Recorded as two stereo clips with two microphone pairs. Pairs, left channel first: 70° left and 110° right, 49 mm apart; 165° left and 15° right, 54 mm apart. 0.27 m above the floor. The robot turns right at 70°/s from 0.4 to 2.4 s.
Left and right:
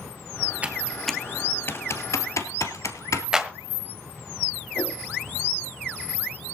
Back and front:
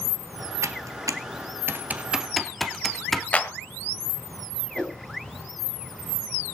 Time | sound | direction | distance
0.6 | typing on a keyboard | 50° right | 1.5 m
3.3 | a clap | 170° right | 1.3 m
4.8 | a whoosh | 100° left | 5.5 m